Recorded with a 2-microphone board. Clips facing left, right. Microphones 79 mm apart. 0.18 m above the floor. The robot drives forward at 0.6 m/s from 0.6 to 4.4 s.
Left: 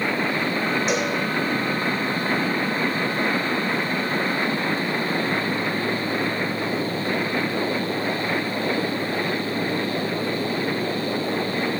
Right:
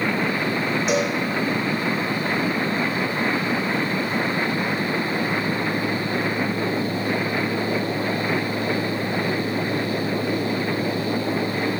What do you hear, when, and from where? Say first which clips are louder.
0.9 s a cowbell: right 2 dB; centre (ahead or behind), 3 m